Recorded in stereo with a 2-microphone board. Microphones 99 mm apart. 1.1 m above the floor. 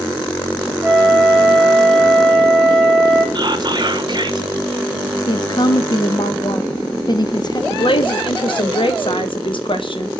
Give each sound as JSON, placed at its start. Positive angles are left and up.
{"t": 0.8, "sound": "a flute", "side_deg": -10, "distance_m": 3.5}
{"t": 3.4, "sound": "whispering", "side_deg": -50, "distance_m": 0.9}
{"t": 5.3, "sound": "a woman speaking", "side_deg": 45, "distance_m": 0.6}
{"t": 7.7, "sound": "a woman speaking", "side_deg": 60, "distance_m": 0.9}